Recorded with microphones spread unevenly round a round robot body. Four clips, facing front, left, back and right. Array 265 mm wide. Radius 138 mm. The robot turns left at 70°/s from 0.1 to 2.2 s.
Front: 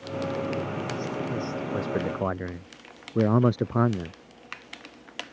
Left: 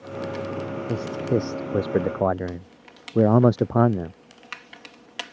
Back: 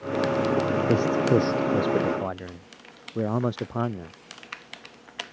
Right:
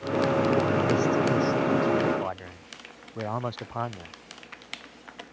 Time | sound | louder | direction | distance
0.9 | a man speaking | right 2 dB, back 10 dB | 170° left | ?